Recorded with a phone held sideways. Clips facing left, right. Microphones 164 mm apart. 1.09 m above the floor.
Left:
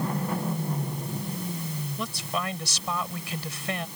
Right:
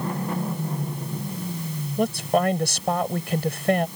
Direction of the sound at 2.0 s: 55° right (ahead or behind).